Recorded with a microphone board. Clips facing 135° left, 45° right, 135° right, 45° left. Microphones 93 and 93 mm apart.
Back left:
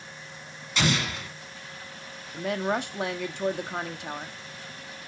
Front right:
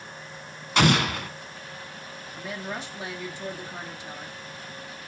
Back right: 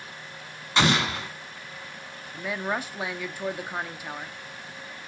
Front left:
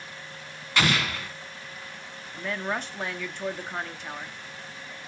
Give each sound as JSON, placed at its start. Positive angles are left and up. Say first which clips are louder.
{"t": 0.8, "sound": "an explosion", "louder": "front right 6 dB, back right 3 dB", "azimuth_deg": -70, "distance_m": 1.3}
{"t": 2.3, "sound": "a woman speaking", "louder": "back left 8 dB, back right 1 dB", "azimuth_deg": 145, "distance_m": 1.2}